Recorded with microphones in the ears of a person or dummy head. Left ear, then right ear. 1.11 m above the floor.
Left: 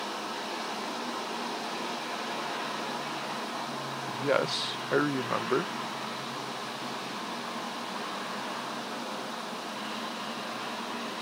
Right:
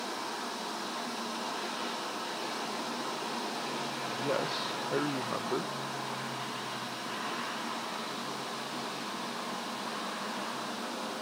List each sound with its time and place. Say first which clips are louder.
4.1 s a man speaking: left 6 dB; 50° left (ahead or behind)